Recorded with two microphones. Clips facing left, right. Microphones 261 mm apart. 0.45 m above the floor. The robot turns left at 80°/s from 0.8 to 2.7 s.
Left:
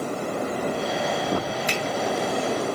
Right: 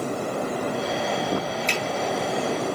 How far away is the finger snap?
About 2.5 m.